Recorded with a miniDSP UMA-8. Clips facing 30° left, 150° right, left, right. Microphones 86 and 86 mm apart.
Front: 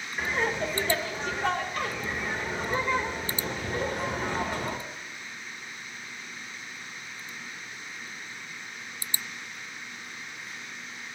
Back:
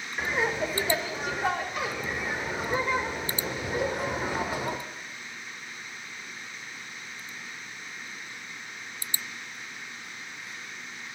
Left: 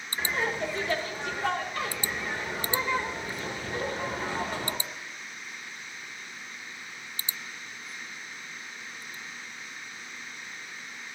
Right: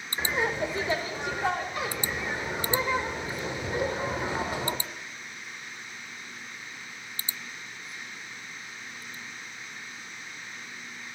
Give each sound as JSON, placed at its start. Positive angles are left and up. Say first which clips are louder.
{"t": 0.2, "sound": "laughter", "louder": "back 1 dB, right 2 dB", "azimuth_deg": -95, "distance_m": 0.8}